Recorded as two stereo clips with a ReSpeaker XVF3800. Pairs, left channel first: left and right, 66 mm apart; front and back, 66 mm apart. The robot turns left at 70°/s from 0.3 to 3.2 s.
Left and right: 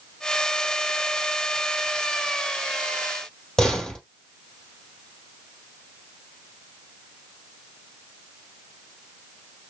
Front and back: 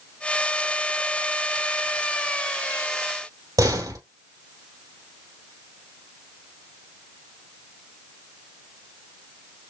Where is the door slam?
170° left, 2.5 m.